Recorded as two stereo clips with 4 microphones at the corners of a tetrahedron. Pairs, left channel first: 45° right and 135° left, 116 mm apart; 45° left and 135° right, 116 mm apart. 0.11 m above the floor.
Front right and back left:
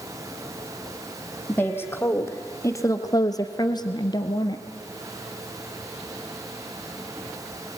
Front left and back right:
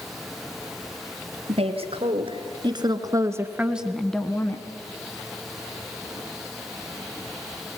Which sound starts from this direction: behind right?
A woman speaking, at 1.5 s.